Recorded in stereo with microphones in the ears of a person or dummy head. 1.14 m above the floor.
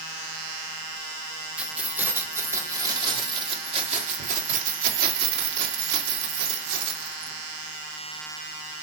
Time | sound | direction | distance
1.6 | keys jangling | 5° right (ahead or behind) | 2.5 m